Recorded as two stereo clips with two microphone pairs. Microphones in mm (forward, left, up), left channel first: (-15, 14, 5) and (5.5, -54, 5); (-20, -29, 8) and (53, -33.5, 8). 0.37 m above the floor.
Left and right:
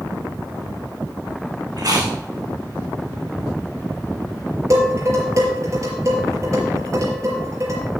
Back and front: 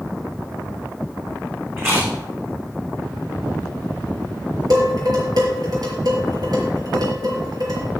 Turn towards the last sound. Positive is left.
turn(degrees=-30)